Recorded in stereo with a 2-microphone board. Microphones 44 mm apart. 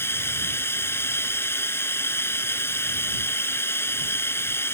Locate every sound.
0.0 s running water: 70° left (ahead or behind)